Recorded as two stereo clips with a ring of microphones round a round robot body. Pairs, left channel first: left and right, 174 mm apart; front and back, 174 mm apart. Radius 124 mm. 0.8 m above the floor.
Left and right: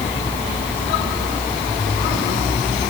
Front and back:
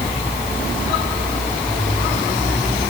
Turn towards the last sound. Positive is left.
No sound to turn to.